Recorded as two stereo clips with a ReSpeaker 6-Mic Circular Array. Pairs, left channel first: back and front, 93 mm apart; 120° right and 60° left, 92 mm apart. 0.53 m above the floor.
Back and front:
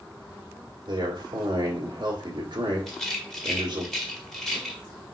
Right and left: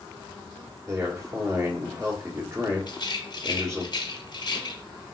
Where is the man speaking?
10° left, 1.5 m.